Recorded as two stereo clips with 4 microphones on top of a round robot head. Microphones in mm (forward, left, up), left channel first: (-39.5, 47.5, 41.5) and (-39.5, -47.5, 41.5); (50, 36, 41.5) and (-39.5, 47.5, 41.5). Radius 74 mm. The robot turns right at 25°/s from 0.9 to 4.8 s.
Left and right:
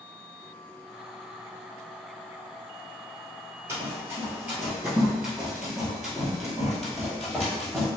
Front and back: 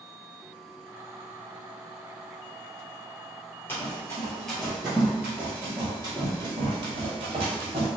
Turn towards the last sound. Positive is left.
turn(degrees=180)